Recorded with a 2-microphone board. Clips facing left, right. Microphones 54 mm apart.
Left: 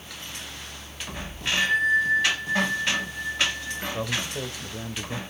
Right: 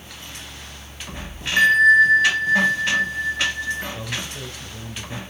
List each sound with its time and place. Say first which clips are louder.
1.6 s a bell: right 9 dB; 85° right, 1.8 m
3.9 s a man speaking: left 2 dB; 35° left (ahead or behind), 1.4 m